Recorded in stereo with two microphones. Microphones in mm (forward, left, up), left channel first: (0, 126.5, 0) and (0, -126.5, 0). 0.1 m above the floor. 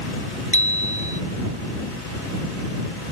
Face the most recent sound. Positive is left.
turn(degrees=30)  # may be behind; listen again after turning